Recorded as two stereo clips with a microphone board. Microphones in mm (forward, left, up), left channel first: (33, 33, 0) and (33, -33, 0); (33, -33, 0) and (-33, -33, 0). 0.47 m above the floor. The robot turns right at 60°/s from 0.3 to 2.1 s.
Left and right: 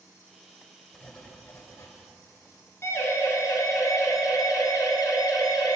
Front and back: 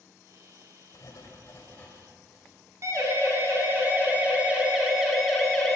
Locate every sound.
0.9 s writing: 5° left, 2.5 m; by 1.9 s 65° left, 2.5 m
2.8 s a siren: 140° left, 4 m; by 5.8 s 80° left, 3.5 m